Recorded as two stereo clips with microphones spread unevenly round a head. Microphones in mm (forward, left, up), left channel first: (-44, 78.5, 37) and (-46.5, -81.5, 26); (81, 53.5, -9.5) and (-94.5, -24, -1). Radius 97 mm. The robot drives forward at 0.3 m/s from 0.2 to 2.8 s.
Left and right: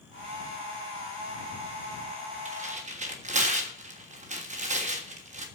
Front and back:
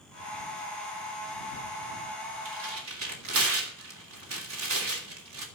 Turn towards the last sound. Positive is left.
turn(degrees=-130)